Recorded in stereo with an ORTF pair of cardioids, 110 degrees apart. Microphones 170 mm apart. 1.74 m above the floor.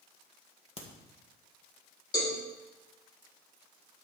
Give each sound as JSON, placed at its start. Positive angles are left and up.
{"t": 0.8, "sound": "a crack", "azimuth_deg": 35, "distance_m": 1.7}
{"t": 2.1, "sound": "a cowbell", "azimuth_deg": 25, "distance_m": 3.5}